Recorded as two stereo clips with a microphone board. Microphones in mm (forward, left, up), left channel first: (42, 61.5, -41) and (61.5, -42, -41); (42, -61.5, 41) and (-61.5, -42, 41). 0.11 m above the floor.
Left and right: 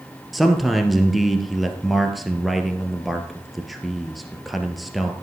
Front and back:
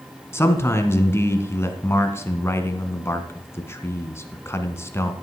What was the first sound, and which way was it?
A man speaking, 5° left.